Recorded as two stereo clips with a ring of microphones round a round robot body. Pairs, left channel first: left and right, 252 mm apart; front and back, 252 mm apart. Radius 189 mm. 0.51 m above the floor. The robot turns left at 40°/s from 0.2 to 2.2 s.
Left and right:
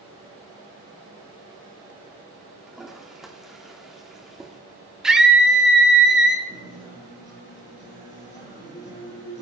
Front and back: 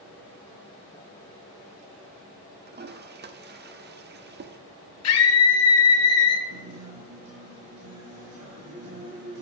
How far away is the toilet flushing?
About 1.0 m.